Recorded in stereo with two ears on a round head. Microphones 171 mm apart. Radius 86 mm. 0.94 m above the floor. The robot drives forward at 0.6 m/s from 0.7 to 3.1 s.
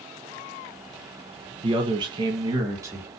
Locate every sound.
1.6 s a man speaking: 25° right (ahead or behind), 0.6 m; by 3.1 s 15° right (ahead or behind), 1.1 m